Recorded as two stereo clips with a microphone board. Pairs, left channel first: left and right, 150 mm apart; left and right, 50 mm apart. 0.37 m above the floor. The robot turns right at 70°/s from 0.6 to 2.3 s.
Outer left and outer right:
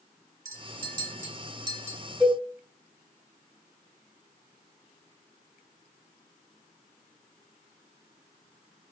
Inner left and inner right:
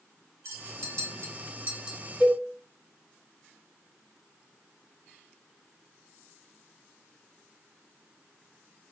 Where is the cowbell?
5° right (ahead or behind), 1.6 m; by 2.4 s centre (ahead or behind), 1.6 m.